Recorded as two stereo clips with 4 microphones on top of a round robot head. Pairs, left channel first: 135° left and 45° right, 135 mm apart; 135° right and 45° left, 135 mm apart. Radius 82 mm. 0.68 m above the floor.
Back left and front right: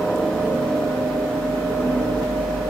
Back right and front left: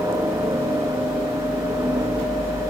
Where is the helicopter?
55° left.